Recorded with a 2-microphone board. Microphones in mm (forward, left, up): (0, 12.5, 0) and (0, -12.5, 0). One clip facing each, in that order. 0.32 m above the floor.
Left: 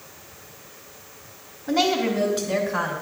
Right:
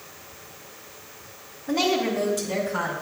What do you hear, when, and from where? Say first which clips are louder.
1.7 s a woman speaking: left 2 dB; 50° left (ahead or behind), 3.5 m; by 2.9 s 40° left (ahead or behind), 2 m